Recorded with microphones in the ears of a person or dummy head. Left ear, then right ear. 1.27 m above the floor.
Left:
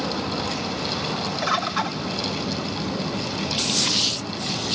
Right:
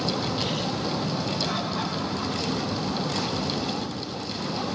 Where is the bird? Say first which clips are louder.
Left 5 dB; 60° left (ahead or behind), 0.8 m.